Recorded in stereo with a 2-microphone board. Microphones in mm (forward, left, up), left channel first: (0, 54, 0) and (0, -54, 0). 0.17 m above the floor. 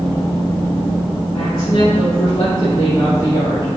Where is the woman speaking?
45° left (ahead or behind), 3 m; by 3.8 s 40° left (ahead or behind), 4 m.